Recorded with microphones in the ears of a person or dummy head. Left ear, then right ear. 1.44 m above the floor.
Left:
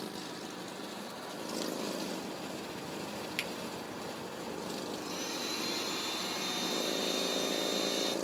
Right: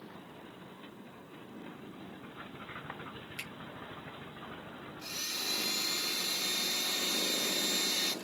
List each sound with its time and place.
3.4 s a finger snap: 45° left (ahead or behind), 0.9 m
5.0 s a blender: 20° right (ahead or behind), 0.6 m